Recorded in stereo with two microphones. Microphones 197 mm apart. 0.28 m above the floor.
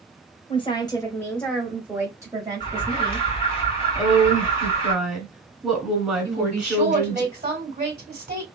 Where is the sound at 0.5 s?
25° left (ahead or behind), 1.2 m; by 3.3 s 35° right (ahead or behind), 1.6 m.